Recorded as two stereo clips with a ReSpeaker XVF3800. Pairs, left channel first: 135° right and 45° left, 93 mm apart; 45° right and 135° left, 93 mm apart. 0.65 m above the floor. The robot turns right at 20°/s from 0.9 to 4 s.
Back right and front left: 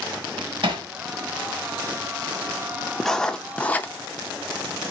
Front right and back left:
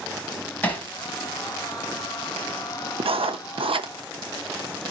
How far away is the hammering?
About 1.6 m.